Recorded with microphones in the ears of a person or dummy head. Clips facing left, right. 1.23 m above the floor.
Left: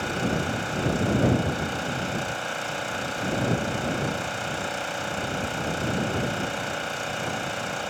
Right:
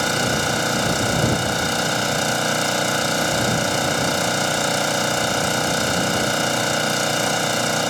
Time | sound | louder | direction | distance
0.0 | an engine running | right 5 dB | 85° right | ?